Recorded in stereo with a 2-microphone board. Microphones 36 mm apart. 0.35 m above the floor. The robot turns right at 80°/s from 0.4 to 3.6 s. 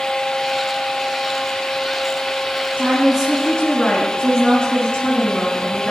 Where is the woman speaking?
50° right, 3 m; by 5.9 s 15° left, 3 m.